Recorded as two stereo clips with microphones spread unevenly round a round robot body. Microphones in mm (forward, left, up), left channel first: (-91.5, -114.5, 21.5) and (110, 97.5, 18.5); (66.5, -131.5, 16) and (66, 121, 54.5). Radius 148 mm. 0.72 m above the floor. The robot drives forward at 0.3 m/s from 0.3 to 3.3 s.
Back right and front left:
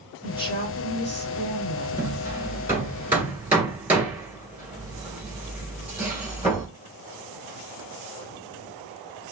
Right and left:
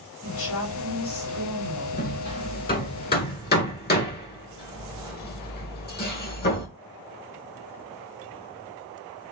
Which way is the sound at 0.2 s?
60° right.